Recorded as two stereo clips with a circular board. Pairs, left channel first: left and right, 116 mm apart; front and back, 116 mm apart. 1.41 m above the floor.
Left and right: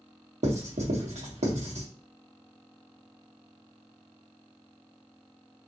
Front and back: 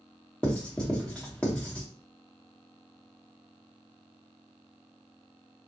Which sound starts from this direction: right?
Writing, at 0.4 s.